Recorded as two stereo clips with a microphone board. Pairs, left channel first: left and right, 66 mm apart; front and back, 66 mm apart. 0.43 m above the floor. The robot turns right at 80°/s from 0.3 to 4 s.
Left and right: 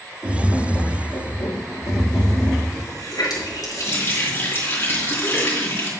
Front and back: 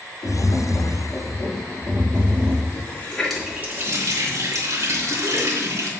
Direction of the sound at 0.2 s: 15° right.